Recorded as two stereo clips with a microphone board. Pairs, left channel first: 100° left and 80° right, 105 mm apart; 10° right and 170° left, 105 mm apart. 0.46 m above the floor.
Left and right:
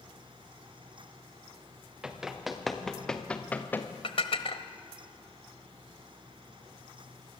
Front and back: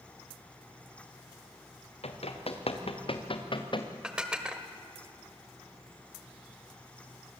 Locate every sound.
2.0 s running footsteps: 5° left, 3.5 m; by 3.9 s 30° left, 2.5 m
4.0 s dishes clattering: 90° left, 1.5 m